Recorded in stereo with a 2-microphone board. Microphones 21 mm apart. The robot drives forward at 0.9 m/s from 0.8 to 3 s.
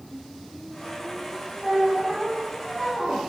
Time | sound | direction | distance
1.6 | a squeak | 25° right (ahead or behind) | 2.5 m